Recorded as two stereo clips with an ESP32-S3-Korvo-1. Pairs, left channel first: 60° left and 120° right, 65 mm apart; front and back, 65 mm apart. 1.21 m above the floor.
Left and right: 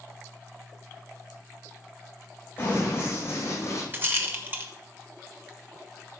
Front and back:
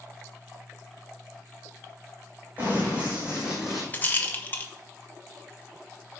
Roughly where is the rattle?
Ahead right.